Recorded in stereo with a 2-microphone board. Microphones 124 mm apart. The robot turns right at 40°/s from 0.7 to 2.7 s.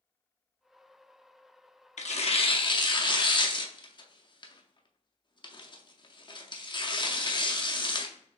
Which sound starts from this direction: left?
Tearing paper, at 2.0 s.